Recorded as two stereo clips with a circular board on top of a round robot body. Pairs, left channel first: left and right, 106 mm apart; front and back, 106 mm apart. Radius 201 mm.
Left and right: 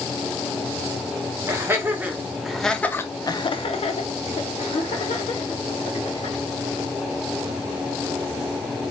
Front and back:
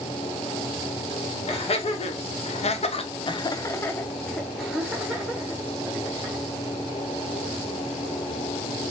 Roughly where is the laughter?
Ahead right.